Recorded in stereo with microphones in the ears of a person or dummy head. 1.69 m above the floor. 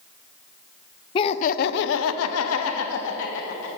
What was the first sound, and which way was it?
Laughter, 25° left (ahead or behind).